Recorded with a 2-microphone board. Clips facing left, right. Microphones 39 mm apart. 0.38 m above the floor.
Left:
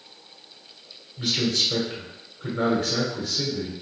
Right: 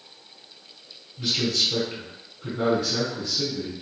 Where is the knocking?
No knocking in this recording.